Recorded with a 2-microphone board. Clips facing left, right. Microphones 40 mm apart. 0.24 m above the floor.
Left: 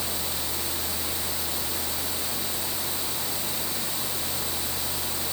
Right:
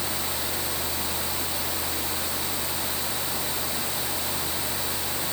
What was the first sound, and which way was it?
Only background noise.